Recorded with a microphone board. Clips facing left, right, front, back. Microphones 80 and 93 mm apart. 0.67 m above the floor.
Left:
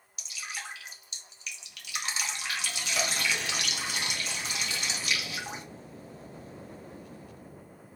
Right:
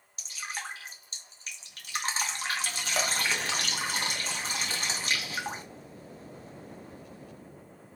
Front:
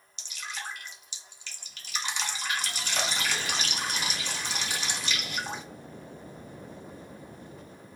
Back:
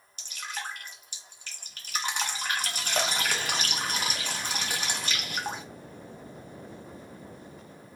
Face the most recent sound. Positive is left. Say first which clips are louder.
# right 2 dB, back 2 dB
turn(degrees=-140)